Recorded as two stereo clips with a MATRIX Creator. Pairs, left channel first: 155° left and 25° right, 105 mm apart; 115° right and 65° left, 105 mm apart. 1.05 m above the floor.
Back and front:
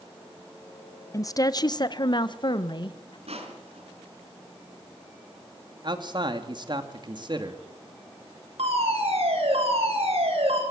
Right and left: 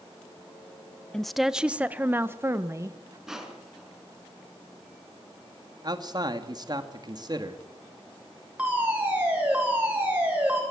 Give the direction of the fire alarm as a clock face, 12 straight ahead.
12 o'clock.